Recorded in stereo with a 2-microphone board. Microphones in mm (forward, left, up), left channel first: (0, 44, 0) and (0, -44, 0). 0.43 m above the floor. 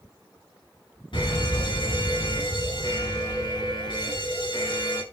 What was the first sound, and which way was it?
A fire alarm, 65° left (ahead or behind).